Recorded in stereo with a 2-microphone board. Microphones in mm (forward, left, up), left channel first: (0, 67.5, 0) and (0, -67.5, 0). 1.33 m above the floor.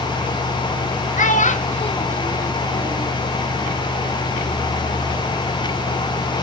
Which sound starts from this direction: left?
A child speaking, at 1.2 s.